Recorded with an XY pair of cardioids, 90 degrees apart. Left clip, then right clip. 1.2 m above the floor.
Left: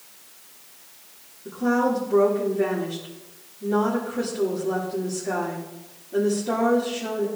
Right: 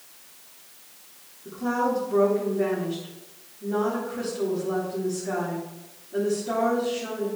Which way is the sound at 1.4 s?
20° left.